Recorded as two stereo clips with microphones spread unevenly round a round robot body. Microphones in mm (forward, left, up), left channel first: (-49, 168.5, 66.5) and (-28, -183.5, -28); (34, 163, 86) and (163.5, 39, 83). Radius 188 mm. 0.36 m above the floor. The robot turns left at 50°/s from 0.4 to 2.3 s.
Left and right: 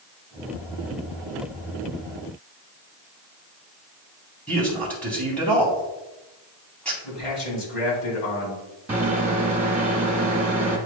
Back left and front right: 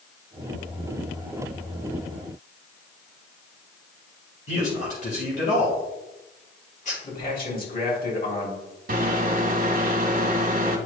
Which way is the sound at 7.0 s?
105° left.